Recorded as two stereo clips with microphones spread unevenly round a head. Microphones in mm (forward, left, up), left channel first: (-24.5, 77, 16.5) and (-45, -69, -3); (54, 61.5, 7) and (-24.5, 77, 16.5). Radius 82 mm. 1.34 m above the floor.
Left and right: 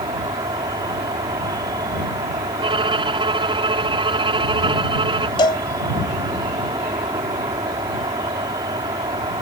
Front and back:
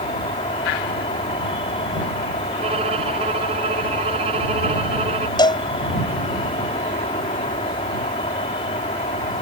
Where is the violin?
155° right.